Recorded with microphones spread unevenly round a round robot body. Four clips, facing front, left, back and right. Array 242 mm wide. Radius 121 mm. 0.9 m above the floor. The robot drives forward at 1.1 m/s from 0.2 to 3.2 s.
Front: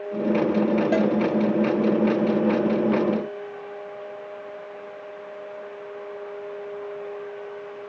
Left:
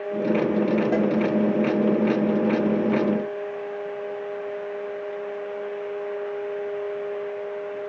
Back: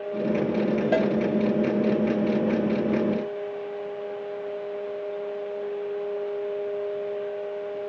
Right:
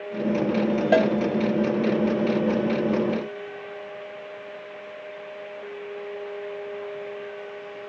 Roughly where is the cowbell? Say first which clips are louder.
Right 3 dB, back 1 dB; right.